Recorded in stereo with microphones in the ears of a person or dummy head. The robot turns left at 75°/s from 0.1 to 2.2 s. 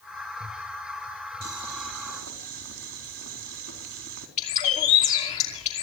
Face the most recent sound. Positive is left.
turn(degrees=35)  # may be behind; listen again after turning